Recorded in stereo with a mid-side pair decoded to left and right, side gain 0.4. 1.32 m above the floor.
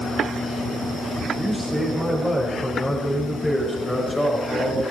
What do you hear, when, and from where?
1.4 s a man speaking: 10° left, 6 m; by 4.8 s 30° left, 6.5 m